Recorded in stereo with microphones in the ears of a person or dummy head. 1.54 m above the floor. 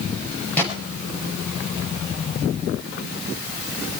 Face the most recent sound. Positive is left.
turn(degrees=10)  # may be behind; listen again after turning